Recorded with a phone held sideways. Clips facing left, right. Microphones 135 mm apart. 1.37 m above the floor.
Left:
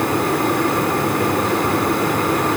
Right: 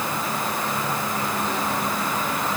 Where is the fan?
70° left (ahead or behind).